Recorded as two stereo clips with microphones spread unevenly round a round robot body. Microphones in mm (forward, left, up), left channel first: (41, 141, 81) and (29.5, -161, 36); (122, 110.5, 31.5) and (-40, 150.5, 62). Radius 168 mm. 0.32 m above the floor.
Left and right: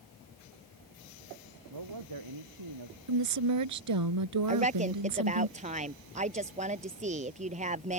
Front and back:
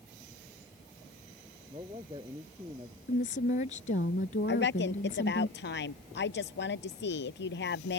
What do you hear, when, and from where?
1.7 s a man speaking: 120° right
3.1 s a woman speaking: 70° right
4.5 s a woman speaking: 25° right